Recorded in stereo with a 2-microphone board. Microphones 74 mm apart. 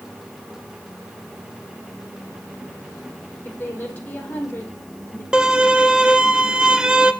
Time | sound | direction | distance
3.5 | a woman speaking | 25° left (ahead or behind) | 4 m
5.3 | a violin | 10° right (ahead or behind) | 0.9 m